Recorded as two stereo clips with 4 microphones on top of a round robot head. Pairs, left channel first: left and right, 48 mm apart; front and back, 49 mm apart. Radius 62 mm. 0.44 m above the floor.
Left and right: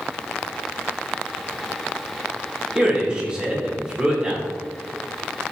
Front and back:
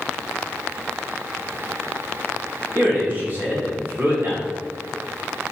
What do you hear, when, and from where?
2.8 s a man speaking: 155° right, 1.5 m